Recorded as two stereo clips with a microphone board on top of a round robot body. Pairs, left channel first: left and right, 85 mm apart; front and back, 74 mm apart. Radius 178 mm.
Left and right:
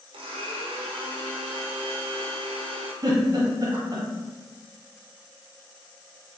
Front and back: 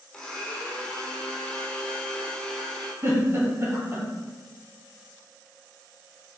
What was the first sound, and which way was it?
A blender, 85° right.